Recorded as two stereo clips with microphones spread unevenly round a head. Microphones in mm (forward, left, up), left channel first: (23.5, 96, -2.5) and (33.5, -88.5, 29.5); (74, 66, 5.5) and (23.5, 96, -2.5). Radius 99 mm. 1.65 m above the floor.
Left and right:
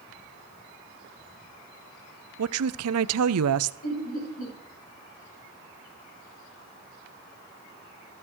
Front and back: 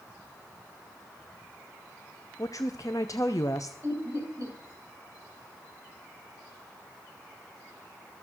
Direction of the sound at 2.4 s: 105° right.